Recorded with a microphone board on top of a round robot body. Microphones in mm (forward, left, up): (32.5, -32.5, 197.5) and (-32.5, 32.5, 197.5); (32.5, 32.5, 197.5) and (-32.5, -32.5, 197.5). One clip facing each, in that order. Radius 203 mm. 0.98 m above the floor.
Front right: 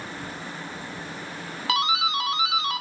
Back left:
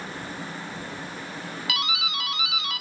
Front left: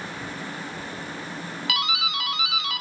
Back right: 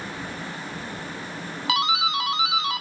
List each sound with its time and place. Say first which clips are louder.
1.7 s a doorbell: front right 7 dB, back right 5 dB; 85° right, 0.8 m